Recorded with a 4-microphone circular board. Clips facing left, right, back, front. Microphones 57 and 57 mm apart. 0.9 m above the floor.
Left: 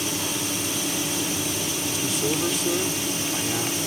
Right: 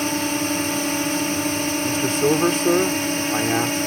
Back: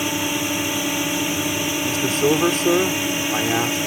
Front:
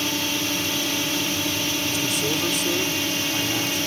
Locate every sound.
0.0 s a drone: 110° right
1.8 s a man speaking: 135° right